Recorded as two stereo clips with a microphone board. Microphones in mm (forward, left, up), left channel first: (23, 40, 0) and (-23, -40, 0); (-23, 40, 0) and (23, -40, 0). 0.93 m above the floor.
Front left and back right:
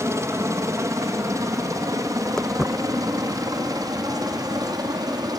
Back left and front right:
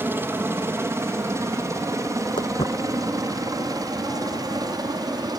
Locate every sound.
0.0 s a helicopter: 105° right; by 5.4 s 90° right
2.4 s footsteps: 145° left; by 5.3 s 165° left